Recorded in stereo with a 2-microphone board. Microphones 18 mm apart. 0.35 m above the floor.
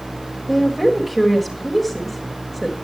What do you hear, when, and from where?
0.5 s a woman speaking: 5° right (ahead or behind), 1.6 m